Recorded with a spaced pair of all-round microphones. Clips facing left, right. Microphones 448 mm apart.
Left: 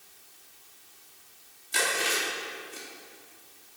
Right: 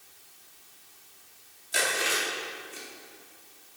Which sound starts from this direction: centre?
Chewing, at 1.7 s.